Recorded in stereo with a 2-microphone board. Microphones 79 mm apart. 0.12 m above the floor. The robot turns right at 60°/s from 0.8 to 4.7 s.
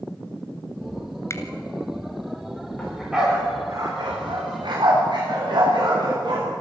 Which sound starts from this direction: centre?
A dog barking, at 2.8 s.